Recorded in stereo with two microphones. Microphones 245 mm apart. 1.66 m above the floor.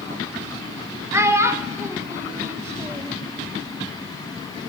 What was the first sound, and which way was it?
A child speaking, 10° right (ahead or behind).